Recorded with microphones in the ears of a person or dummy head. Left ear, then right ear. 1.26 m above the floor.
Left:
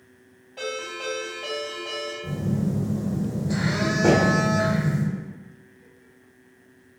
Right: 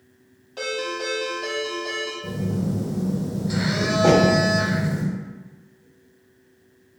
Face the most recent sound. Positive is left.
turn(degrees=0)  # may be behind; listen again after turning